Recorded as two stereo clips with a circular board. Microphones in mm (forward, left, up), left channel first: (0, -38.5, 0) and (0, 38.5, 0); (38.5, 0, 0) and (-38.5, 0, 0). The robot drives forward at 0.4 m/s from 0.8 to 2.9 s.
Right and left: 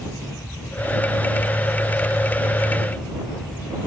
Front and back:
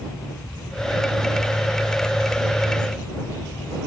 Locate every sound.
Only background noise.